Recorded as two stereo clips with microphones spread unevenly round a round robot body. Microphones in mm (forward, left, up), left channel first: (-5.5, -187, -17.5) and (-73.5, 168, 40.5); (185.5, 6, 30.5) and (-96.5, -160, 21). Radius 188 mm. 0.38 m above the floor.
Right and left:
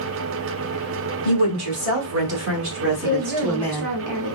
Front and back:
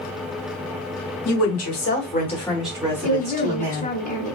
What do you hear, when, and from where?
1.2 s a woman speaking: 50° left, 2 m; by 3.9 s 170° right, 2 m
3.0 s a woman speaking: 90° left, 1.4 m